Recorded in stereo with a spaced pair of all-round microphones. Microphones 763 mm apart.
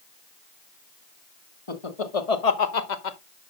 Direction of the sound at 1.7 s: 40° left (ahead or behind).